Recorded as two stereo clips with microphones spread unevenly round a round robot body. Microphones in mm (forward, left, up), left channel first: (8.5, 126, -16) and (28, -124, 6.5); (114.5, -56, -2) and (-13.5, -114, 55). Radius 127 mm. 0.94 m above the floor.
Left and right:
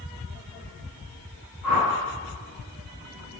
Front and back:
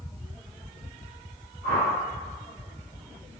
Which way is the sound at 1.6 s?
105° left.